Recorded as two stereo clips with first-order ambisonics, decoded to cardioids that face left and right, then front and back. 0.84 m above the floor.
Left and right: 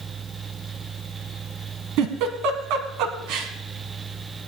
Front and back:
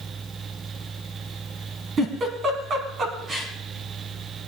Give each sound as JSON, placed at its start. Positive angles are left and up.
{"t": 2.0, "sound": "a giggle", "azimuth_deg": -115, "distance_m": 1.8}